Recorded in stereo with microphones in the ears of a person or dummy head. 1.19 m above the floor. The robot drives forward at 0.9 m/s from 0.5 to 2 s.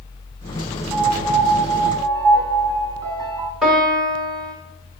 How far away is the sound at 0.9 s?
About 2 m.